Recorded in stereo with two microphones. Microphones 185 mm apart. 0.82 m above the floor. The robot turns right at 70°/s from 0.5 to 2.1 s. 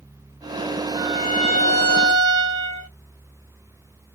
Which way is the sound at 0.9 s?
145° left.